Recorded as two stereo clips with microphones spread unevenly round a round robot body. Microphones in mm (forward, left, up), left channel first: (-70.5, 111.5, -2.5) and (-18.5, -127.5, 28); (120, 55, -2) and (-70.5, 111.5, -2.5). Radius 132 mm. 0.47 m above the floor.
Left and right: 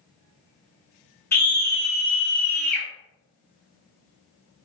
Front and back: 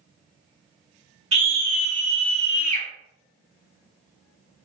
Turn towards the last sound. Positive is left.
turn(degrees=-15)